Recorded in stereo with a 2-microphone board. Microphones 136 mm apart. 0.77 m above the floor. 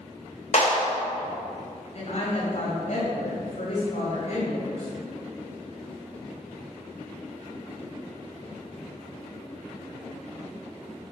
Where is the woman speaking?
55° left (ahead or behind), 3.5 m.